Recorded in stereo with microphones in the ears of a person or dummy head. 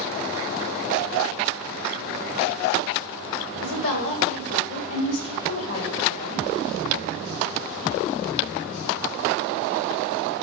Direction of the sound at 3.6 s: 80° left.